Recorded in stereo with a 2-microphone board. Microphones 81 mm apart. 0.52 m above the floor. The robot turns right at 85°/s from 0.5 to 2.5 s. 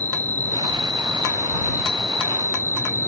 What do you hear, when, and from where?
0.0 s an insect: 130° right; by 3.1 s 40° left